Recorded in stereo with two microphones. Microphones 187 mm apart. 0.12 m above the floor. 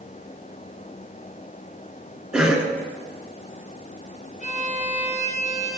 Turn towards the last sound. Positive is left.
turn(degrees=40)  # may be behind; listen again after turning